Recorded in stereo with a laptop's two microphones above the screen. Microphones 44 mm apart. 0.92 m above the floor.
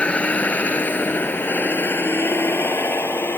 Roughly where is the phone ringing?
I don't hear a phone ringing.